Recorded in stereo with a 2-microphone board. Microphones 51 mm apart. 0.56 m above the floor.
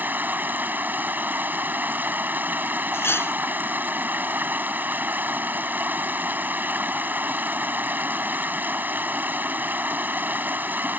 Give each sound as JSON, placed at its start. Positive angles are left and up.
{"t": 0.0, "sound": "running water", "side_deg": -40}
{"t": 2.9, "sound": "cutlery clinking", "side_deg": 55}